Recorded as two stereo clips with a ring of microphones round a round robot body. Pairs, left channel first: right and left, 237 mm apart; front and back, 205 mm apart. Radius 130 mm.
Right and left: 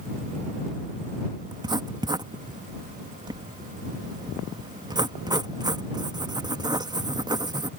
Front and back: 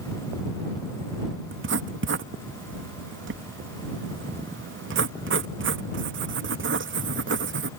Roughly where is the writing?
Behind.